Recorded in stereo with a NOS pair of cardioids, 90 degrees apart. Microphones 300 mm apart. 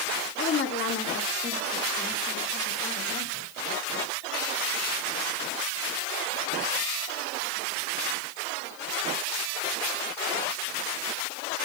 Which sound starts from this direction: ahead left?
A woman speaking, at 0.4 s.